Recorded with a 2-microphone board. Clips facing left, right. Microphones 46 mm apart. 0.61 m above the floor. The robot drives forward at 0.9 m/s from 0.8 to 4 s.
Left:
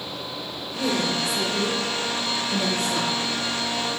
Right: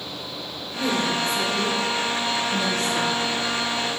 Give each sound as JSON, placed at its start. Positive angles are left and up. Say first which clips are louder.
{"t": 0.8, "sound": "a woman speaking", "louder": "right 1 dB", "side_deg": 10, "distance_m": 1.6}